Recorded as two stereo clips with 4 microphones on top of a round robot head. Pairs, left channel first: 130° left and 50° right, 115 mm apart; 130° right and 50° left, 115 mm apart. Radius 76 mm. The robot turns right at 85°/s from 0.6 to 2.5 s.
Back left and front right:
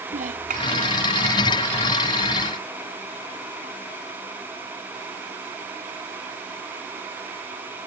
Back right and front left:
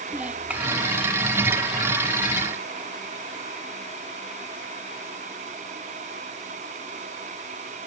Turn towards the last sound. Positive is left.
turn(degrees=135)